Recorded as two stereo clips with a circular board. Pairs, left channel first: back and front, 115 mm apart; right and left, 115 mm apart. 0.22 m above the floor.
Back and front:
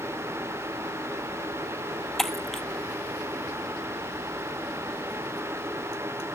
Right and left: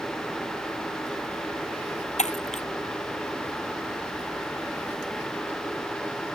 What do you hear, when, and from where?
2.2 s breaking glass: 95° right